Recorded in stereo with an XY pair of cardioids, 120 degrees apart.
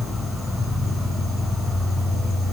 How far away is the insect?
About 4.5 m.